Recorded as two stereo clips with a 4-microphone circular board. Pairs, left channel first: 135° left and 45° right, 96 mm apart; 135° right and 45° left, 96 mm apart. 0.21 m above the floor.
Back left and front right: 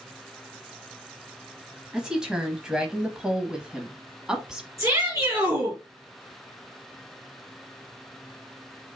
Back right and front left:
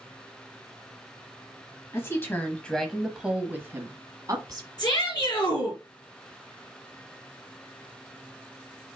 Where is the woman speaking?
120° right, 1.1 m; by 4.7 s 35° left, 1.4 m.